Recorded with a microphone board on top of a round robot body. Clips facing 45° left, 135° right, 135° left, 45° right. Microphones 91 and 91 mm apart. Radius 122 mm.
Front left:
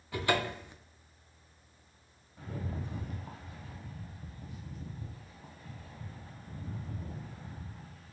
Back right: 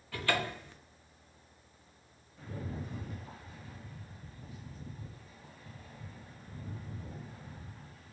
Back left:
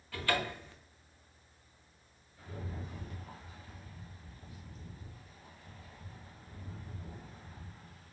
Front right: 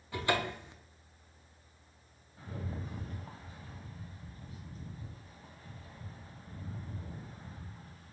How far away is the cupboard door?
About 0.6 m.